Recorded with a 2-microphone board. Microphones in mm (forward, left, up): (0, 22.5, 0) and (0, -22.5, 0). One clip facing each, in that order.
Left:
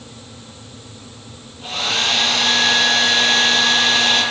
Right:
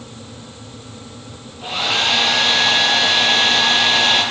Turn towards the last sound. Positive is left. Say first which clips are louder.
# right 2 dB
turn(degrees=-15)  # may be behind; listen again after turning